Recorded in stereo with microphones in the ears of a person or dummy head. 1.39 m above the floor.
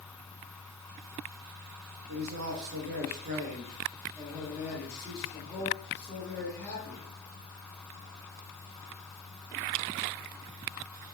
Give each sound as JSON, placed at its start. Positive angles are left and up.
{"t": 2.1, "sound": "a man speaking", "side_deg": -75, "distance_m": 1.0}